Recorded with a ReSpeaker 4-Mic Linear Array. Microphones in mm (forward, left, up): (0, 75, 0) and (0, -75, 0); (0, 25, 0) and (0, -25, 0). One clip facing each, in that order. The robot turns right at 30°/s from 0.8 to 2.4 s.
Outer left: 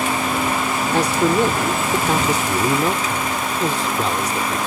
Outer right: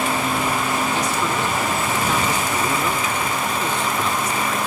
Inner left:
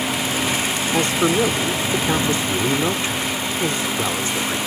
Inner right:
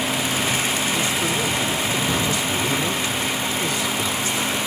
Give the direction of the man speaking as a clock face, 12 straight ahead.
9 o'clock.